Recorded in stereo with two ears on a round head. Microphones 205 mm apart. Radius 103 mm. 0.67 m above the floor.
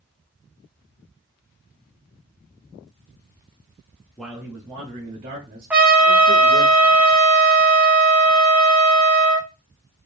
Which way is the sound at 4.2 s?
5° left (ahead or behind).